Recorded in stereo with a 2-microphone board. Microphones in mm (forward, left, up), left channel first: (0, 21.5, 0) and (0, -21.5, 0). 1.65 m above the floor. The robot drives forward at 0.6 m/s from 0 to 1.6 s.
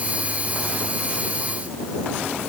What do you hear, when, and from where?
Only background noise.